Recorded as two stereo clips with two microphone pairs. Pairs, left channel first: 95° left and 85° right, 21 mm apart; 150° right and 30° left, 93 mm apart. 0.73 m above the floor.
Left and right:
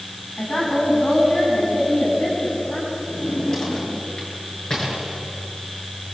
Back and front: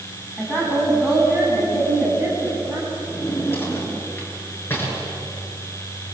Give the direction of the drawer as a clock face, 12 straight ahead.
7 o'clock.